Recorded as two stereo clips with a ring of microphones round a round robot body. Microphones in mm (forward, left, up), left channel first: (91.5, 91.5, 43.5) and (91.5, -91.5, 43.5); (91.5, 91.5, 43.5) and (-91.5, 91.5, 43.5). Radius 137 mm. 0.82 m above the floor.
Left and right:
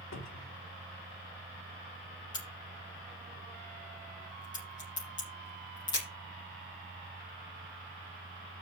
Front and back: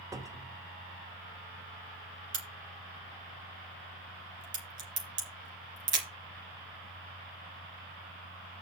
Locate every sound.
0.1 s a cupboard door: 105° left, 1.8 m
2.3 s a crack: 165° left, 5 m